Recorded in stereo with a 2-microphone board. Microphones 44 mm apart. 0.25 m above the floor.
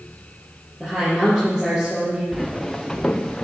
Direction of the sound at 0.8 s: 10° right (ahead or behind).